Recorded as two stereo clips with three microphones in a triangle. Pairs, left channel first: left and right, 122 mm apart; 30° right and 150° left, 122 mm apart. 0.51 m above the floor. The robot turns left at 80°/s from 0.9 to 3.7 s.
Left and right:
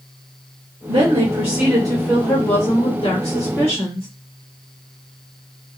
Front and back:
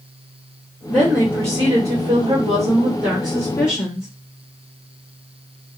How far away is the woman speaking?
About 1.4 m.